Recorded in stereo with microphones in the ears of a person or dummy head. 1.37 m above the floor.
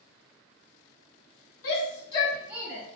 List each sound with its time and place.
1.6 s a shout: 65° left (ahead or behind), 1.0 m; by 2.8 s 25° right (ahead or behind), 1.1 m